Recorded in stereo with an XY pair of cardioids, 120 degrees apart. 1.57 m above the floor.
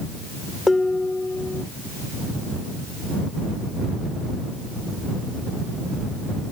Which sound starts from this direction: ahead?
Dishes clattering, at 0.7 s.